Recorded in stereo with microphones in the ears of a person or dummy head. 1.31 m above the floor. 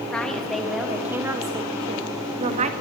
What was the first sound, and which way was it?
A woman speaking, 10° left (ahead or behind).